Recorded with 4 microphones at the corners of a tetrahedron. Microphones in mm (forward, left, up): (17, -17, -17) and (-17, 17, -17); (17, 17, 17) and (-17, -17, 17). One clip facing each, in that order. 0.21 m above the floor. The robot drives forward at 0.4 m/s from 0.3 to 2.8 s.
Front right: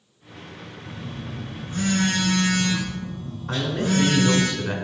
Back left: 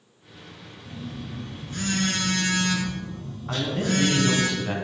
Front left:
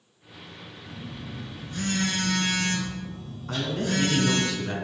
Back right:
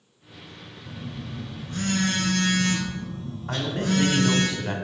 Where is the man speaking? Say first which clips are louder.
Front right 2 dB, back right 2 dB; 140° right, 1.5 m.